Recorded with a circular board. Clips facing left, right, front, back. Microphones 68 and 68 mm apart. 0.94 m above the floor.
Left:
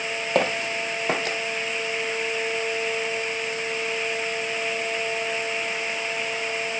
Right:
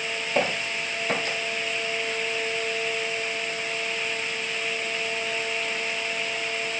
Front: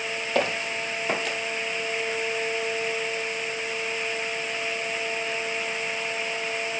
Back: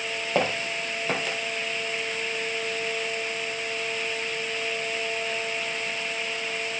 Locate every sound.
0.3 s footsteps: 110° left, 2 m; by 1.4 s 90° left, 1.7 m